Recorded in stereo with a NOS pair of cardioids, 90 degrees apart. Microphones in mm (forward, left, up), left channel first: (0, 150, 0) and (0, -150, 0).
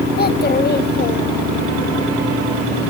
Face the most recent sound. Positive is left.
turn(degrees=30)